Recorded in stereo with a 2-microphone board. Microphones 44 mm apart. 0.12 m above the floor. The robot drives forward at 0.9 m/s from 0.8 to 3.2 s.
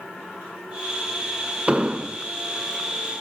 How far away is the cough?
No cough in this recording.